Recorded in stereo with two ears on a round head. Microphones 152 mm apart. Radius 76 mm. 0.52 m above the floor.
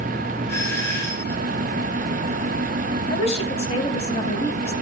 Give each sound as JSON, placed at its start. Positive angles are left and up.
{"t": 0.5, "sound": "a doorbell", "side_deg": 15, "distance_m": 4.5}
{"t": 3.1, "sound": "a woman speaking", "side_deg": 40, "distance_m": 4.0}